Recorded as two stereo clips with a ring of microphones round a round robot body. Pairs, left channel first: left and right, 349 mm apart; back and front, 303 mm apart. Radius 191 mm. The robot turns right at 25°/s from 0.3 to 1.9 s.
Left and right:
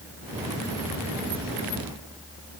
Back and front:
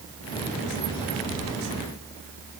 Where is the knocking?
No knocking in this recording.